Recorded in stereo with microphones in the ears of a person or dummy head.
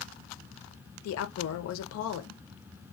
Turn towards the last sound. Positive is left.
turn(degrees=80)